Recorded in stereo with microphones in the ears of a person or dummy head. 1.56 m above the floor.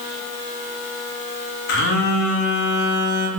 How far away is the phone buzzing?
About 0.6 m.